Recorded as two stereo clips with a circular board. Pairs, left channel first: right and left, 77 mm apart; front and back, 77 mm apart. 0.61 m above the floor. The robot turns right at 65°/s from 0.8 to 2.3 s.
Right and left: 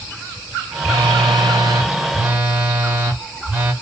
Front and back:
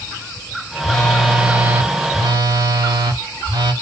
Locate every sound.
0.8 s a phone buzzing: 70° left, 1.0 m; by 3.7 s 165° left, 1.0 m